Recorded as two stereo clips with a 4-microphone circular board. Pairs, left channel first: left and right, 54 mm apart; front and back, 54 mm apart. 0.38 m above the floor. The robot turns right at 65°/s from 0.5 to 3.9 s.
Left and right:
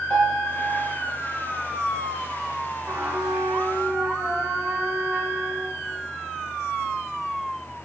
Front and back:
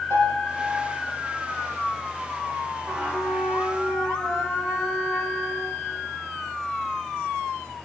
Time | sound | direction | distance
0.1 | a piano | 20° left | 4.5 m
2.9 | a trumpet | 135° right | 3 m